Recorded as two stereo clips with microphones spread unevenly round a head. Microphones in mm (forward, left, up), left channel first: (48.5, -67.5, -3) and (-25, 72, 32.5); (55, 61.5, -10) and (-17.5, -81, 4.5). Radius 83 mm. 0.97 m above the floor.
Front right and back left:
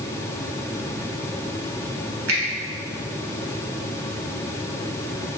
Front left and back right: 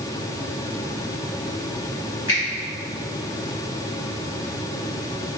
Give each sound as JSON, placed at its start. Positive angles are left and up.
{"t": 2.3, "sound": "a finger snap", "azimuth_deg": 120, "distance_m": 1.2}